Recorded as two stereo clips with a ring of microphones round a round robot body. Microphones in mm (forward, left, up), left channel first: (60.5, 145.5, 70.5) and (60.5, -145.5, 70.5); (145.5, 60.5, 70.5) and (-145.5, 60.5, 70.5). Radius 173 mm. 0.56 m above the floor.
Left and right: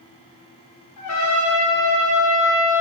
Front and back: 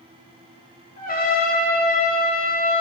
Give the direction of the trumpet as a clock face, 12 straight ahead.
10 o'clock.